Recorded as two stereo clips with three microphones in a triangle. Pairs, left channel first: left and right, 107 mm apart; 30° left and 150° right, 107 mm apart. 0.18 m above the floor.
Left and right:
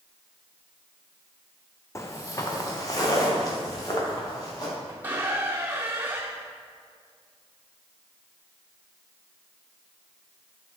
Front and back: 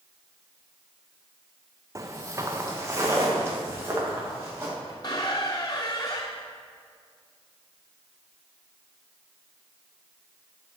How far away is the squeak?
About 0.7 m.